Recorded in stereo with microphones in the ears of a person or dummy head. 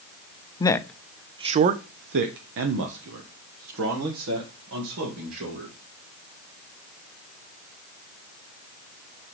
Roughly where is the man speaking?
Centre.